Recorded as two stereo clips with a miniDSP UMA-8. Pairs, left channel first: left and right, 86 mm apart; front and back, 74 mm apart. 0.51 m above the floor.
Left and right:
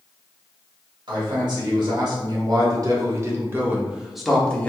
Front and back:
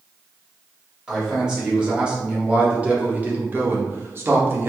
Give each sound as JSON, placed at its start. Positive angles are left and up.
{"t": 1.1, "sound": "a man speaking", "azimuth_deg": -100, "distance_m": 1.9}